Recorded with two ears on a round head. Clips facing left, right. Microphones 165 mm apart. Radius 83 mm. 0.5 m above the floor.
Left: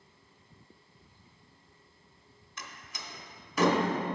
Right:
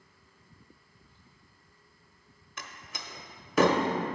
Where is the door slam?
50° right (ahead or behind), 0.8 m.